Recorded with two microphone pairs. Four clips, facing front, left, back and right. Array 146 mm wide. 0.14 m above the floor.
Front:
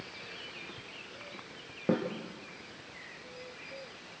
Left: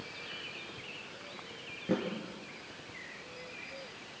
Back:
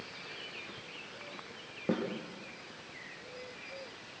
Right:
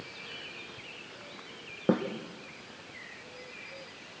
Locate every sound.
1.9 s a snare drum: 80° right, 3.5 m